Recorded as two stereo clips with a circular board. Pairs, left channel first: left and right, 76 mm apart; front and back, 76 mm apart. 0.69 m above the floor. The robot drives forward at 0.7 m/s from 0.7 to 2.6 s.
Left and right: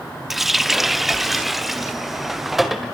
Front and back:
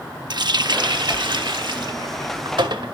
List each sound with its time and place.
0.3 s a running tap: 175° right, 0.7 m; by 2.9 s straight behind, 2 m